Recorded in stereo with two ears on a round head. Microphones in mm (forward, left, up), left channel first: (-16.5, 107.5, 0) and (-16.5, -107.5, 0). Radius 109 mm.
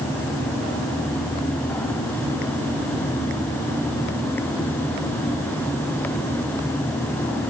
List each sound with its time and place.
Only background noise.